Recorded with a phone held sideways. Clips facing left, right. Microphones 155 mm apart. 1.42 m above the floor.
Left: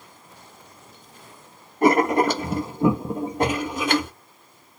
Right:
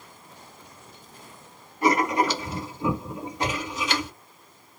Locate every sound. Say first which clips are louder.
1.8 s writing: left 5 dB; 55° left (ahead or behind), 0.9 m